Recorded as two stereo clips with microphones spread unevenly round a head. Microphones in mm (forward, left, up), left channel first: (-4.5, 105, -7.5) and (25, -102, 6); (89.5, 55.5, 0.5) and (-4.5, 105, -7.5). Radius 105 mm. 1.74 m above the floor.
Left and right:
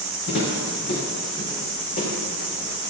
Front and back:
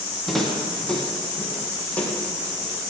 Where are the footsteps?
60° left, 5 m; by 2.9 s 40° left, 6 m.